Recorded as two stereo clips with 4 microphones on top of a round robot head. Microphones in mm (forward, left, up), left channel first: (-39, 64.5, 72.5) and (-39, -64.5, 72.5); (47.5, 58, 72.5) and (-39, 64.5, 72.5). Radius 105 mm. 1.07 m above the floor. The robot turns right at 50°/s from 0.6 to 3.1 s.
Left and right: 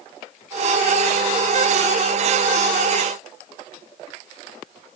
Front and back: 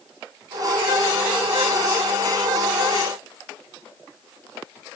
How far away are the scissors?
I don't hear scissors.